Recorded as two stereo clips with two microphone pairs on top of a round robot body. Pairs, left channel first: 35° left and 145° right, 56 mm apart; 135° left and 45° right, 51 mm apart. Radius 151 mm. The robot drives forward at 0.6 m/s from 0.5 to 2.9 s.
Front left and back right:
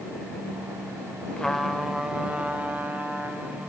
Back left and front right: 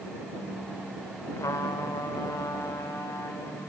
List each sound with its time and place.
1.4 s a trumpet: 110° left, 0.6 m; by 3.7 s 155° left, 1.2 m